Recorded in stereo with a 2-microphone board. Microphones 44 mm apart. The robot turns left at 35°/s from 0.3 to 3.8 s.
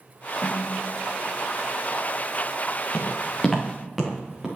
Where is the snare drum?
35° left (ahead or behind), 0.7 m; by 1.3 s 60° left (ahead or behind), 0.7 m.